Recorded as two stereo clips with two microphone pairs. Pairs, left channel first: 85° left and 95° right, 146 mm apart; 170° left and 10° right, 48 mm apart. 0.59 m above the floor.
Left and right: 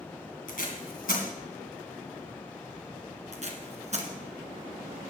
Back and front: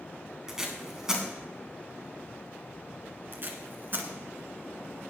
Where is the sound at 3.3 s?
55° right, 1.9 m.